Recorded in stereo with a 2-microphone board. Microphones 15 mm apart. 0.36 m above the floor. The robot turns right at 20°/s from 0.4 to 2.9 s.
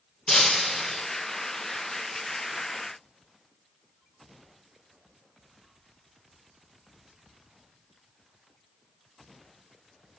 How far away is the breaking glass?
About 3 m.